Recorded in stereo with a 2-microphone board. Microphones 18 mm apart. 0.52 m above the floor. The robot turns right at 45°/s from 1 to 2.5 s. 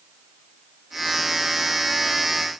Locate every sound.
Only background noise.